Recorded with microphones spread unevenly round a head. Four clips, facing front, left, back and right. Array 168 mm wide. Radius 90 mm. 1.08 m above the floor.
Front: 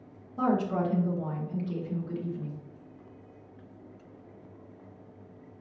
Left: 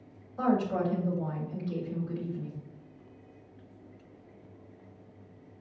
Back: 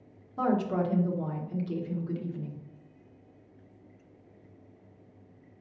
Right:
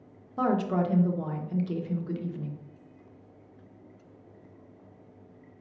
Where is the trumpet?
I don't hear a trumpet.